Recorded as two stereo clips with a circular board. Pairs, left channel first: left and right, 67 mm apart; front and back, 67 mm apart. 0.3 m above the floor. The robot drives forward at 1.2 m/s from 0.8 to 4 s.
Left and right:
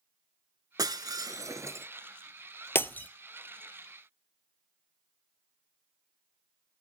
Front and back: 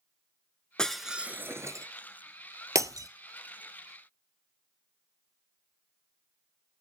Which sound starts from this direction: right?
Breaking glass, at 0.8 s.